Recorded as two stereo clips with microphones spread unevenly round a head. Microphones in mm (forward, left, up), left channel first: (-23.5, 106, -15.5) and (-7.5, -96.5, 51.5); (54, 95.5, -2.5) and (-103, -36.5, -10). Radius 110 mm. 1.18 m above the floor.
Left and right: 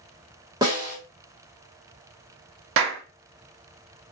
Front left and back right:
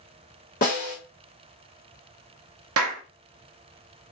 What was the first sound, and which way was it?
A snare drum, 15° right.